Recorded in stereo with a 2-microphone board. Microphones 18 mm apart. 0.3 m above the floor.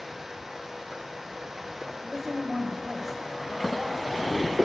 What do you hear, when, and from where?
2.0 s a woman speaking: 10° right (ahead or behind), 1.1 m